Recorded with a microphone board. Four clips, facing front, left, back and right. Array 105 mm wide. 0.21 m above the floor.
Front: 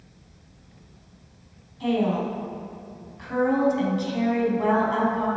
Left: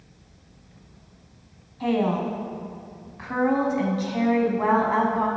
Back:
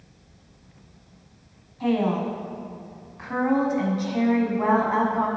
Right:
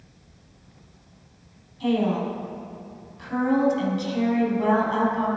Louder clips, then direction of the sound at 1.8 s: Even, even; 125° left.